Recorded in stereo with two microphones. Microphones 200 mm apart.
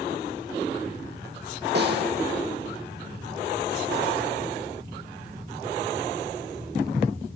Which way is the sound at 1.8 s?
60° right (ahead or behind).